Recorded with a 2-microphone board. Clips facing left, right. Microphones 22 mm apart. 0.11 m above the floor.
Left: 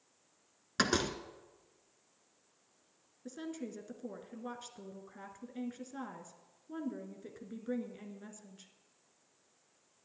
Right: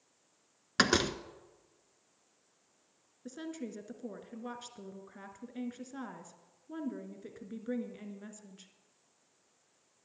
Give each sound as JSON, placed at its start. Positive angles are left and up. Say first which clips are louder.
{"t": 0.8, "sound": "a door slam", "louder": "right 4 dB", "side_deg": -20, "distance_m": 0.8}
{"t": 3.2, "sound": "a woman speaking", "louder": "right 1 dB", "side_deg": -5, "distance_m": 1.3}